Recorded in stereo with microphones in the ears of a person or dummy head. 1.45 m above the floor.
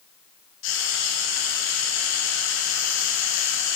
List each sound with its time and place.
0.6 s frying: 60° left (ahead or behind), 0.9 m